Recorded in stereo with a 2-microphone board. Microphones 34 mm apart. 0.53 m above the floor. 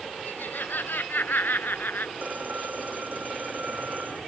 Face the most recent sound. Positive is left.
turn(degrees=-60)  # may be behind; listen again after turning